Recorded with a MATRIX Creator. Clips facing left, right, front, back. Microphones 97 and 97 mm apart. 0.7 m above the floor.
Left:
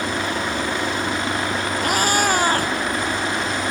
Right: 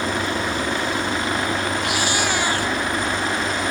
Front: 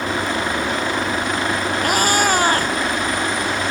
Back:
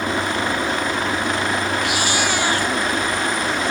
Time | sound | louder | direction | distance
1.8 | a cat meowing | left 3 dB, front 4 dB | 45° left | ?